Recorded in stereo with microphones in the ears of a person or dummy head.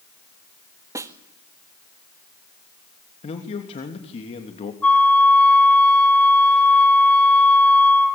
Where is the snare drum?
15° right (ahead or behind), 1.5 m.